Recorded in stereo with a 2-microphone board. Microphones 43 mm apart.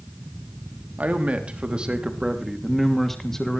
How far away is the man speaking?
About 3 m.